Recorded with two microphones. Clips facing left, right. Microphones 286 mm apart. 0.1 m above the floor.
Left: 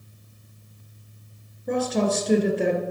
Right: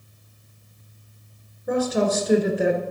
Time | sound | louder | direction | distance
1.7 | a woman speaking | right 2 dB | 5° right (ahead or behind) | 1.6 m